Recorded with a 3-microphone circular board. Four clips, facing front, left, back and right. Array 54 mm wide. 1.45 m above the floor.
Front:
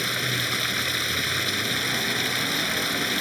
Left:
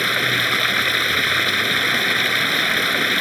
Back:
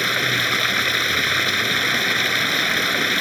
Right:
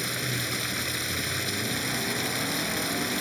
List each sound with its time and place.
0.0 s running water: 125° left